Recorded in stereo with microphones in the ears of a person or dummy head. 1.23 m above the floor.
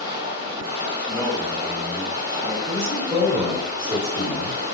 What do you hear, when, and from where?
0.0 s running water: 50° right (ahead or behind), 1.3 m
1.0 s a man speaking: 15° right (ahead or behind), 1.4 m
2.6 s a man speaking: 30° right (ahead or behind), 1.8 m